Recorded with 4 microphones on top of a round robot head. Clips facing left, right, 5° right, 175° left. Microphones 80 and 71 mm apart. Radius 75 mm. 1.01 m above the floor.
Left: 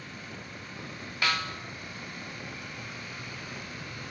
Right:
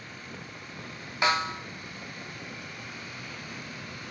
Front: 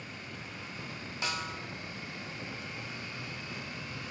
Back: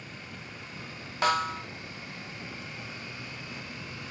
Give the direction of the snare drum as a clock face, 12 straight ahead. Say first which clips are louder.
Right 5 dB, back 11 dB; 5 o'clock.